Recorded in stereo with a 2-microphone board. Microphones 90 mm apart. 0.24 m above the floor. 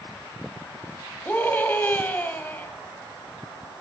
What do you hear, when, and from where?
1.2 s a scream: 20° left (ahead or behind), 1.0 m